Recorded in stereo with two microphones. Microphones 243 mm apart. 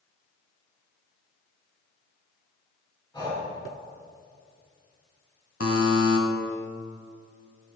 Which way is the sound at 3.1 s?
20° left (ahead or behind).